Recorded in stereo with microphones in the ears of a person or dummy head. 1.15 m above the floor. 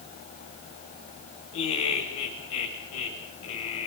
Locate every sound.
1.5 s laughter: 80° left, 5 m